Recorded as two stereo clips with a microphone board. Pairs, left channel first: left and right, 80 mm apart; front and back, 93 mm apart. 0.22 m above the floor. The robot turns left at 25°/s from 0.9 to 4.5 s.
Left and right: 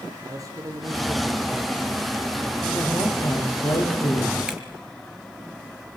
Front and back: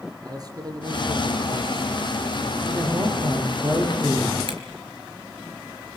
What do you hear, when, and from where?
0.2 s a man speaking: 135° right, 6 m; by 1.9 s 160° right, 6 m
2.7 s a woman speaking: 145° left, 10 m; by 4.4 s 100° left, 10 m
4.5 s a camera shutter: 170° right, 4.5 m